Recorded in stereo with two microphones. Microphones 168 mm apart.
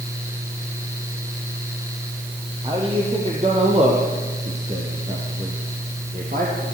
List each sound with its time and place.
2.6 s a man speaking: 30° right (ahead or behind), 5.5 m; by 6.6 s 55° right (ahead or behind), 6 m